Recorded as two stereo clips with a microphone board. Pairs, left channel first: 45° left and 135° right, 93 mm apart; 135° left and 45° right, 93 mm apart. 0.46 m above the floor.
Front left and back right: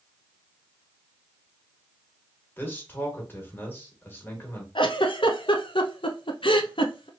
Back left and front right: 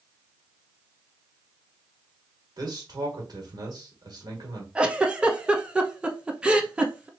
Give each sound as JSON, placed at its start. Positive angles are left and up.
{"t": 2.6, "sound": "a man speaking", "azimuth_deg": -15, "distance_m": 1.6}
{"t": 4.8, "sound": "a giggle", "azimuth_deg": 35, "distance_m": 0.6}